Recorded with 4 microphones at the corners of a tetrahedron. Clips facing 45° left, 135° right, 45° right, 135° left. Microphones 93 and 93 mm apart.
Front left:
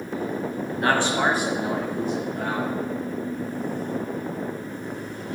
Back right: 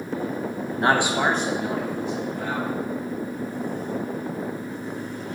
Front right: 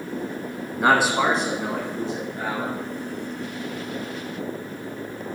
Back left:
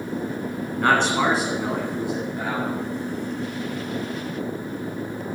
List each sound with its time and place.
0.8 s a man speaking: 110° right, 1.3 m; by 2.7 s 65° left, 2.5 m